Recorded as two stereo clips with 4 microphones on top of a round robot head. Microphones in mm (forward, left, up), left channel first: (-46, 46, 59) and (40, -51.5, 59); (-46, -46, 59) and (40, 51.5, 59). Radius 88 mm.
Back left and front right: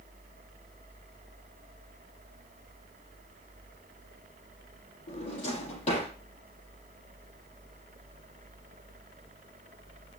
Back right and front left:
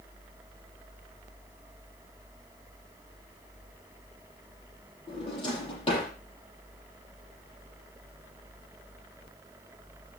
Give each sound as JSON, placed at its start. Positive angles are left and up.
{"t": 5.1, "sound": "a drawer", "azimuth_deg": 175, "distance_m": 8.0}